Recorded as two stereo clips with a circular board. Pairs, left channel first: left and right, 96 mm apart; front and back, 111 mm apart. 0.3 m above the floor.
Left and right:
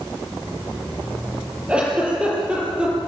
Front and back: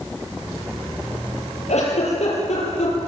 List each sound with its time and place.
1.7 s a giggle: 10° right, 8 m